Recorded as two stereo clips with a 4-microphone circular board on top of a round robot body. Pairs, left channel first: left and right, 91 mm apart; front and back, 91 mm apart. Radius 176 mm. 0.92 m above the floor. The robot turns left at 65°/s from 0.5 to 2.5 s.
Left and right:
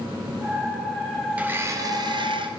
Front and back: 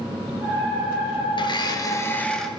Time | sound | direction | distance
1.4 | a blender | 15° right | 1.9 m